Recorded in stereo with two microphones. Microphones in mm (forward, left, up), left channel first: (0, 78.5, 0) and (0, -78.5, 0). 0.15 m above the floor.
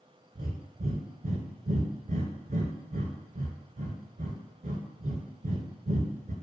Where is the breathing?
65° right (ahead or behind), 0.5 m.